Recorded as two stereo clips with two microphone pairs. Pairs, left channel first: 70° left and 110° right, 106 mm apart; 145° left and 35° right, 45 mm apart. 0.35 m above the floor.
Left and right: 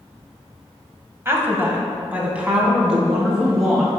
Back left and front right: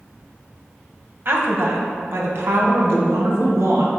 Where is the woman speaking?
50° right, 1.5 m; by 3.9 s 25° right, 3 m.